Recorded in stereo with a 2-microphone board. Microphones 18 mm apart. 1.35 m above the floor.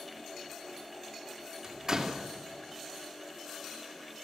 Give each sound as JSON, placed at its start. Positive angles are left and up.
{"t": 1.6, "sound": "a door slam", "side_deg": -30, "distance_m": 2.5}